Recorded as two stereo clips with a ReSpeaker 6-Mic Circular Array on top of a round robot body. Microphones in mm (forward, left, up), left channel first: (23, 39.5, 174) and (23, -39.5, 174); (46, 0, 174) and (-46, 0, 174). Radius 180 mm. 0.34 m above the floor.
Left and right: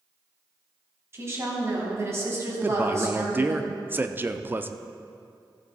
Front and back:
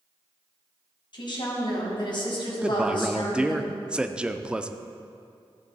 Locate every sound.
1.1 s a woman speaking: 35° right, 4 m
2.6 s a man speaking: 110° right, 0.9 m